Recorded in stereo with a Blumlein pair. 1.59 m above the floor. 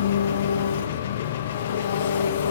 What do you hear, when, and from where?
0.0 s an engine running: 60° left, 0.8 m